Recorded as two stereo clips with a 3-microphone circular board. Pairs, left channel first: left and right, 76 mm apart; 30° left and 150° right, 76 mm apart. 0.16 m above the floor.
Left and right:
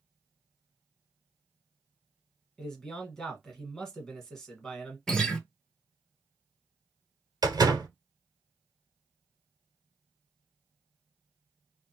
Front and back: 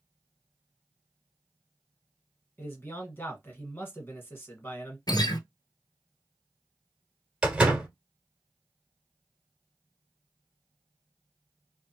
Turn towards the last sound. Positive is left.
turn(degrees=-75)